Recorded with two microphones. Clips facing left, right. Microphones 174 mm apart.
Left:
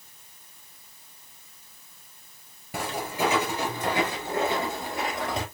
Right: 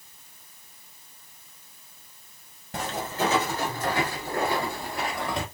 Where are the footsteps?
10° left (ahead or behind), 1.5 m; by 5.5 s 20° left (ahead or behind), 1.8 m.